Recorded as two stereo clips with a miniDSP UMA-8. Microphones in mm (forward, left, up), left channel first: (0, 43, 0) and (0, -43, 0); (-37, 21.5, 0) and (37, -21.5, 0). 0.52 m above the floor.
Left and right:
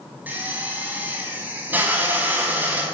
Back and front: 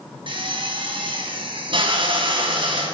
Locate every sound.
0.3 s a drill: 20° right, 4.5 m